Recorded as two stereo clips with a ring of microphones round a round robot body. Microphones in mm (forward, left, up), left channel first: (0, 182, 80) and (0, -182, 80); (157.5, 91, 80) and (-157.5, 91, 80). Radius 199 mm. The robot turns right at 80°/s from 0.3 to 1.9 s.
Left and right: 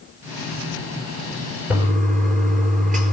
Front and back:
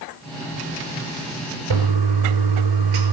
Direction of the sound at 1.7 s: Straight behind.